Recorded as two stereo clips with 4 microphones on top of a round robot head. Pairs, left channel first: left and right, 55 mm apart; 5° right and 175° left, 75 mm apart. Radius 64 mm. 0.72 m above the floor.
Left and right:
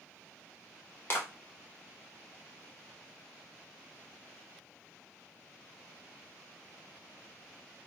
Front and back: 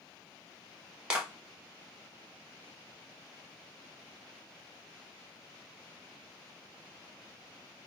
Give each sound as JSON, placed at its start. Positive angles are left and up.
{"t": 1.1, "sound": "a clap", "azimuth_deg": 105, "distance_m": 1.0}